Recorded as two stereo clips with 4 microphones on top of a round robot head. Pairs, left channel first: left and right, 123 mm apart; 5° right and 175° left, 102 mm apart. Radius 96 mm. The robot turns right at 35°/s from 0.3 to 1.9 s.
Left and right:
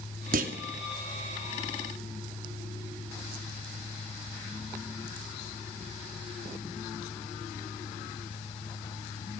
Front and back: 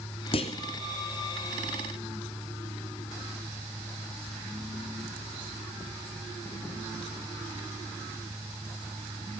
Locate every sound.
0.3 s a clunk: 60° right, 2.5 m; by 0.6 s 50° right, 2.5 m